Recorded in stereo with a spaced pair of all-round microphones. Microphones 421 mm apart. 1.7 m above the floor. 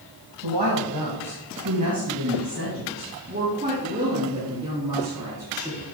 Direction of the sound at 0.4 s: 70° right (ahead or behind).